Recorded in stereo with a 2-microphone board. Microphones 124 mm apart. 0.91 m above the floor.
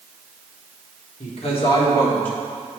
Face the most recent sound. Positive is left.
turn(degrees=10)  # may be behind; listen again after turning